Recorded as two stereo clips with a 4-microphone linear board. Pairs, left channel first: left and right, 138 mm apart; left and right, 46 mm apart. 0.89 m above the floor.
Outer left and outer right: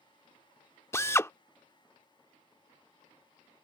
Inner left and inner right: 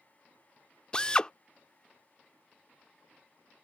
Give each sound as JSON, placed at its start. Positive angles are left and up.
{"t": 0.9, "sound": "a drill", "side_deg": 20}